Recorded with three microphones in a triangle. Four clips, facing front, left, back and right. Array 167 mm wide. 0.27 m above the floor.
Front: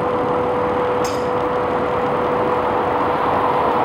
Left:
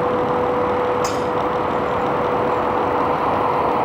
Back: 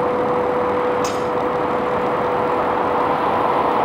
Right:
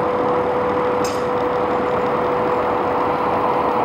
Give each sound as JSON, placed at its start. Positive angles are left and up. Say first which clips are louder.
{"t": 1.0, "sound": "breaking glass", "louder": "even, even", "azimuth_deg": 140, "distance_m": 4.5}